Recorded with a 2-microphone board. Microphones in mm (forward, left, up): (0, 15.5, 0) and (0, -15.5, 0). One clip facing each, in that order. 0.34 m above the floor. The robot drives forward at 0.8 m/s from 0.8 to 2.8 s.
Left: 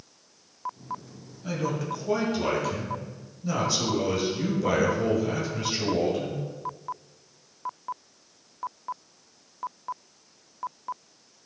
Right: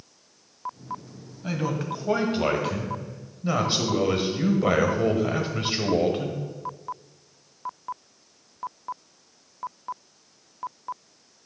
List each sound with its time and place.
1.4 s a man speaking: 25° right (ahead or behind), 2.5 m; by 6.4 s 35° right (ahead or behind), 1.6 m